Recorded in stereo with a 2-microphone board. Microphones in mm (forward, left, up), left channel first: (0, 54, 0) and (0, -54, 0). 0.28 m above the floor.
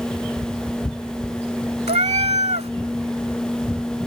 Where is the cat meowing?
75° right (ahead or behind).